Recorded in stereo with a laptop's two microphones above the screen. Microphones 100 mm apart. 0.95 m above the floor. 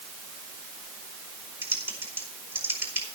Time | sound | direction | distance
1.6 | typing on a keyboard | 20° right (ahead or behind) | 4.5 m